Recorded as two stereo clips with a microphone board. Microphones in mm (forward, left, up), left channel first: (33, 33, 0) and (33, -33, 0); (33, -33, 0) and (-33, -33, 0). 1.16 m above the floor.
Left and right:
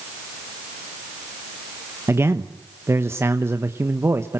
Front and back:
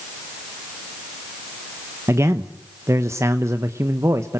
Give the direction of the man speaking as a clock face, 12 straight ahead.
5 o'clock.